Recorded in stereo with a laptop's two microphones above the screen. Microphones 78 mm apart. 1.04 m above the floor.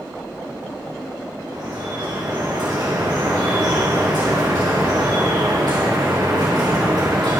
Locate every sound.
1.5 s dripping: 70° right (ahead or behind), 5.5 m